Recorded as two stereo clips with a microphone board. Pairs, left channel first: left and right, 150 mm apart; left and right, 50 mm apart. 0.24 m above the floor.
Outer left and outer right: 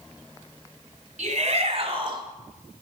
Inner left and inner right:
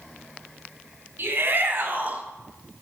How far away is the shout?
About 2.5 m.